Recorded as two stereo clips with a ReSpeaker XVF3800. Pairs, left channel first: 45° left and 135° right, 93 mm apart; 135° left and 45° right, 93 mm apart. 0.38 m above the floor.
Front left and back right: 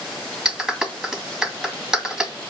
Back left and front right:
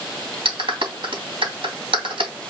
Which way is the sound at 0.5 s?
50° right.